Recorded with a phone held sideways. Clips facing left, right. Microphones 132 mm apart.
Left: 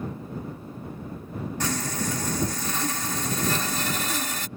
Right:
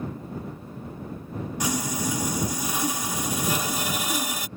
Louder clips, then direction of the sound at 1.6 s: Right 2 dB; 10° right (ahead or behind).